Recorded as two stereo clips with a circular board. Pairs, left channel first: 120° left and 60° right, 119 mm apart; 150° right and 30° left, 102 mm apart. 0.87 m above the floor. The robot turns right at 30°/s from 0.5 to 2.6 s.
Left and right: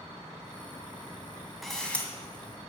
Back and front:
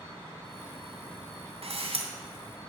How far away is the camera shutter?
About 2 m.